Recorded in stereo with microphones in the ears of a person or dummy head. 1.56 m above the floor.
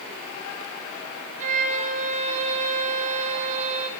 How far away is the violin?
About 0.8 m.